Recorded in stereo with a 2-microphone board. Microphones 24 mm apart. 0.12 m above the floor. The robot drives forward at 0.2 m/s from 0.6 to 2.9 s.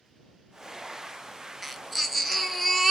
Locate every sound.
1.6 s a baby crying: 5° right (ahead or behind), 0.5 m